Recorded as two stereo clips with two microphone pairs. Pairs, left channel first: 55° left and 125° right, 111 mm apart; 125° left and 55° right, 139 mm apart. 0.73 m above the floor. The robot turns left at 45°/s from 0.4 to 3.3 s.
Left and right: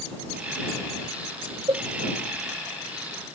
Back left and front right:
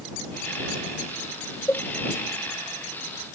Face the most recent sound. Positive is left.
turn(degrees=125)